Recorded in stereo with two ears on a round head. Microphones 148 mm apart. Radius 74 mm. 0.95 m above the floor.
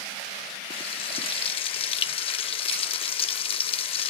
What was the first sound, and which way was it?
Frying, 35° left (ahead or behind).